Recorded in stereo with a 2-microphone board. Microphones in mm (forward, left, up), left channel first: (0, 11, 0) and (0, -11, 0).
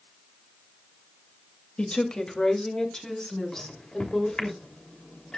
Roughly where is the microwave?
Left.